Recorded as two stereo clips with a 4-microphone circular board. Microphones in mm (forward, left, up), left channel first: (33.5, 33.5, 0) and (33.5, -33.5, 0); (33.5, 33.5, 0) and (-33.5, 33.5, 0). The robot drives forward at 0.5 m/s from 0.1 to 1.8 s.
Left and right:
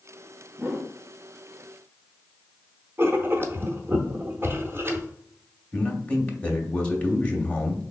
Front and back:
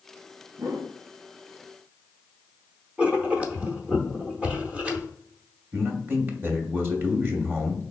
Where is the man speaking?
150° left, 0.9 m.